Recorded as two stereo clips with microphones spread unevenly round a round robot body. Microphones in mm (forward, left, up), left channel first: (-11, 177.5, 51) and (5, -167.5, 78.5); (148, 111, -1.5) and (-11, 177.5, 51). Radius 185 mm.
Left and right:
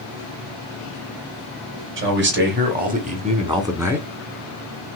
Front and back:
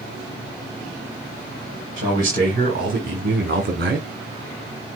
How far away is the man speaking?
About 2 m.